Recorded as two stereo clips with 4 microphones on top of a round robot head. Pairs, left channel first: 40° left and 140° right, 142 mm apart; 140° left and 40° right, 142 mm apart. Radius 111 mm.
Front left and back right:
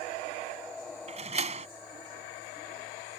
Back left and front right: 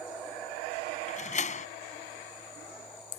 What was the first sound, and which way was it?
A door slam, 175° left.